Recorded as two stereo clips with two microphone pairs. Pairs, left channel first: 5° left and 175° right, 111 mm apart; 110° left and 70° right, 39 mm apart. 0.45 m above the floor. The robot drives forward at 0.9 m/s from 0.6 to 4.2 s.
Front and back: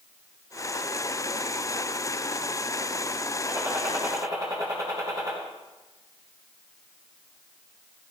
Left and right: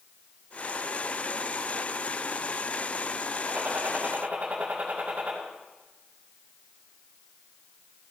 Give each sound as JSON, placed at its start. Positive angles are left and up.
{"t": 3.5, "sound": "a gunshot", "azimuth_deg": -110, "distance_m": 3.5}